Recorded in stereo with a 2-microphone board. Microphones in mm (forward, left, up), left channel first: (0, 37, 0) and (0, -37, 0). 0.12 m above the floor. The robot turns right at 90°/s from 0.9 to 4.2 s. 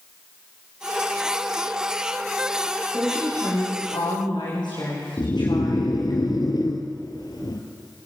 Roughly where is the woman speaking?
Ahead.